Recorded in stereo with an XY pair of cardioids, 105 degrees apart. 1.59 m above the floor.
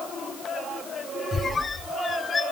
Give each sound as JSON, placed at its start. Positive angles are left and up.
{"t": 1.3, "sound": "a squeak", "azimuth_deg": 30, "distance_m": 1.5}